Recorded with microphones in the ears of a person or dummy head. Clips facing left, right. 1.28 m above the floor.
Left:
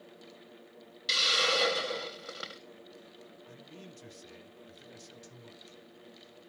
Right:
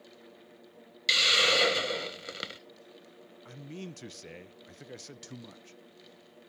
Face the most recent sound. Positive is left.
turn(degrees=-80)